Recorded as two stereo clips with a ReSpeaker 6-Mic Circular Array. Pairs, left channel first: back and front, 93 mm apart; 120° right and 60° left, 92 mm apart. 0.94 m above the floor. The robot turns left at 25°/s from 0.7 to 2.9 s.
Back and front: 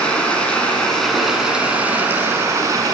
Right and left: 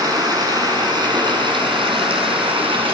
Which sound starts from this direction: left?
Running water, at 0.0 s.